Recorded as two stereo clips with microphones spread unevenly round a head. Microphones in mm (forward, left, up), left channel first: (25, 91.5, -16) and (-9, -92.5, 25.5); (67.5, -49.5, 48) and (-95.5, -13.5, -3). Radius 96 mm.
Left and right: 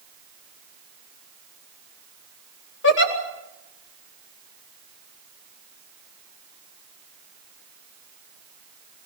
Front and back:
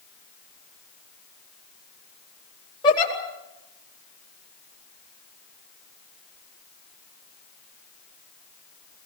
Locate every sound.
2.8 s a giggle: 55° left, 4.5 m